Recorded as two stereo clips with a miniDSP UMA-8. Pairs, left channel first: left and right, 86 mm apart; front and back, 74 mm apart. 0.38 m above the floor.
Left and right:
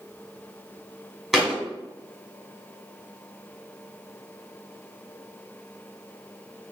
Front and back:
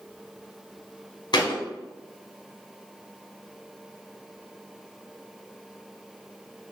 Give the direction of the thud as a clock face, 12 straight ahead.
12 o'clock.